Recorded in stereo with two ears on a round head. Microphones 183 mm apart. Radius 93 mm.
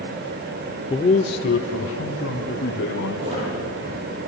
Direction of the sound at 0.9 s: 20° left (ahead or behind).